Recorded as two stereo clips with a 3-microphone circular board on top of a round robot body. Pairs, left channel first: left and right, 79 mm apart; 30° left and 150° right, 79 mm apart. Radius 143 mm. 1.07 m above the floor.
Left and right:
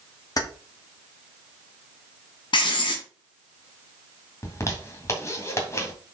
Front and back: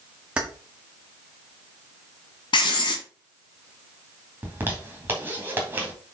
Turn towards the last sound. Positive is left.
turn(degrees=145)